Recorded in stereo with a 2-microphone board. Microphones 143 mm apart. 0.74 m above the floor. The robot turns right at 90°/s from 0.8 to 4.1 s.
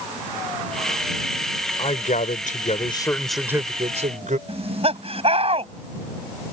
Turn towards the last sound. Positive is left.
turn(degrees=-45)  # may be behind; listen again after turning